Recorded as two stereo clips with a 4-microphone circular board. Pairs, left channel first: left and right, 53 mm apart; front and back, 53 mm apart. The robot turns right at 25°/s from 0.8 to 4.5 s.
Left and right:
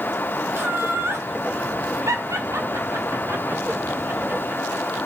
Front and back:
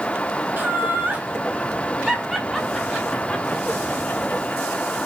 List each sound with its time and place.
0.6 s laughter: 130° right, 1.3 m; by 5.0 s 40° right, 1.3 m